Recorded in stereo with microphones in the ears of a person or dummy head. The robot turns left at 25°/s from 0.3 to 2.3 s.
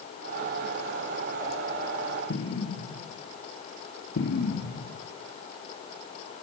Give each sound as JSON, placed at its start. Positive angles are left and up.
{"t": 2.3, "sound": "an explosion", "side_deg": 80, "distance_m": 3.0}